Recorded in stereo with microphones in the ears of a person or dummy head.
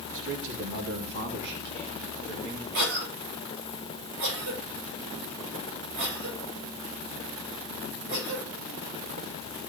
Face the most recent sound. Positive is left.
turn(degrees=-70)  # may be behind; listen again after turning